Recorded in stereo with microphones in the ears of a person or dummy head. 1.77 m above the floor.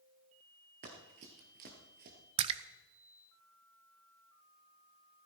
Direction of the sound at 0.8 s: 35° right (ahead or behind).